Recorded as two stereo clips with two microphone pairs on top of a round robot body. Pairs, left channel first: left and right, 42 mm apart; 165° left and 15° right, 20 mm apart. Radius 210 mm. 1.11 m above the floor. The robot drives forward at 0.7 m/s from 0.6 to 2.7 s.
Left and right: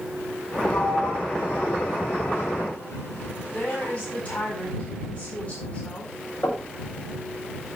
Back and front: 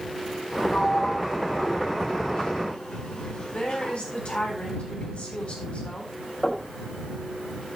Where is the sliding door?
120° left, 7.5 m; by 4.0 s 130° left, 8 m.